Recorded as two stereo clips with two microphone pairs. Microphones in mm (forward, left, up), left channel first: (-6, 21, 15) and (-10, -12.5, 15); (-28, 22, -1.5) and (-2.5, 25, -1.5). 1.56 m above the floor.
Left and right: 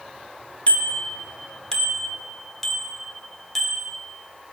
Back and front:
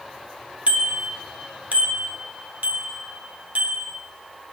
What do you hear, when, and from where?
0.7 s a bicycle bell: 40° left, 2.5 m; by 4.0 s 5° right, 6.5 m